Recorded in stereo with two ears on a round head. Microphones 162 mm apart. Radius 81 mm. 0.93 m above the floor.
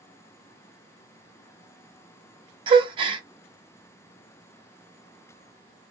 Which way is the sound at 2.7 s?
30° right (ahead or behind).